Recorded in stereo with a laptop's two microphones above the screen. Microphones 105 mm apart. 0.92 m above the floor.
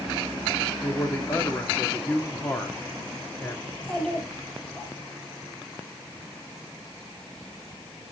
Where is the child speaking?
5° left (ahead or behind), 4 m.